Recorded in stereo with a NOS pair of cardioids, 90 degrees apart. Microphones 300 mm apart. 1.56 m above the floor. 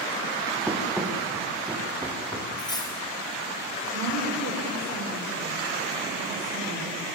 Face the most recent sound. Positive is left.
turn(degrees=-55)